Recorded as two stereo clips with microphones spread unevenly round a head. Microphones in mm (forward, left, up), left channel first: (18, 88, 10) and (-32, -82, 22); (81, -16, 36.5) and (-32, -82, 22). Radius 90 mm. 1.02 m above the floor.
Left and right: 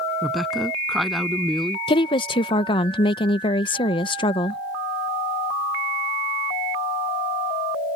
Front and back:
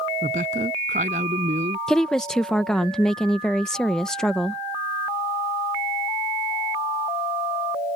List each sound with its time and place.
0.2 s a woman speaking: 165° left
1.9 s a woman speaking: 120° left